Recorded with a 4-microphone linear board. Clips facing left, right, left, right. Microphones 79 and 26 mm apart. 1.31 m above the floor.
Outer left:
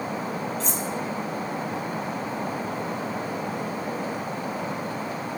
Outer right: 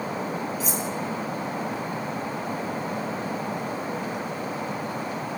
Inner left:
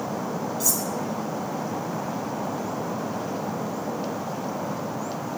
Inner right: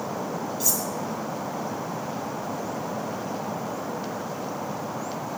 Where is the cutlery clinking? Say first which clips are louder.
Outer right 1 dB, even; 5° right (ahead or behind), 1.3 m.